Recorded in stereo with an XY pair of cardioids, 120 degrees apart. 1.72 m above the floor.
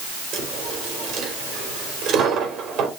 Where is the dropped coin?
65° right, 3.5 m.